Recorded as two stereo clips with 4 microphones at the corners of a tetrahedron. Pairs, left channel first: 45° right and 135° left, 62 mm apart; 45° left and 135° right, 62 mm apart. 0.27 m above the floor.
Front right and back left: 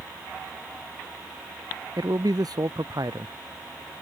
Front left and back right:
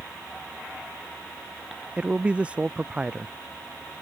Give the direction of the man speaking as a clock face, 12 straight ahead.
7 o'clock.